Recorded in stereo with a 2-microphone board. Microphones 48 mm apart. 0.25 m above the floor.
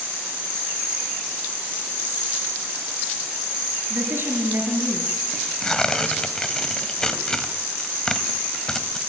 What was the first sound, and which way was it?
A woman speaking, 50° right (ahead or behind).